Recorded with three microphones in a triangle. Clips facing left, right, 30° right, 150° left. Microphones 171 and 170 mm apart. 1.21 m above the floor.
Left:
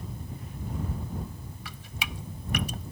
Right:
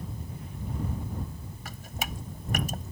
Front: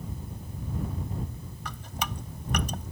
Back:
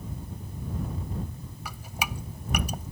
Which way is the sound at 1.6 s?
130° right.